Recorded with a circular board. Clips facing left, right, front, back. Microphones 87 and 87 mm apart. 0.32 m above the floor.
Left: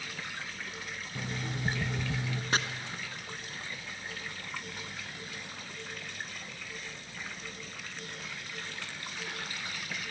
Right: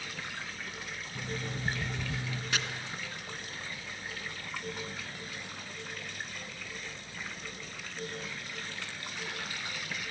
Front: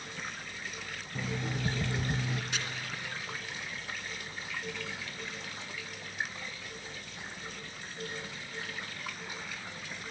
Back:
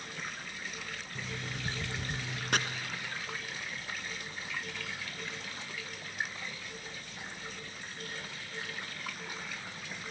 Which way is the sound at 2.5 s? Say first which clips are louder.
Left 4 dB, back 11 dB; 145° left.